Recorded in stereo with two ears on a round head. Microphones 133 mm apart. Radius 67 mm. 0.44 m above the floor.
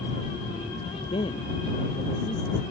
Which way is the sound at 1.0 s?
35° left (ahead or behind).